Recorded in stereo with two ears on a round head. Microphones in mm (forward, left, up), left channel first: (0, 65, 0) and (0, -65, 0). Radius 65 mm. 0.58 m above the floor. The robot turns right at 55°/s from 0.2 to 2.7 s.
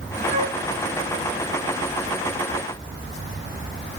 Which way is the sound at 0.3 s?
55° right (ahead or behind).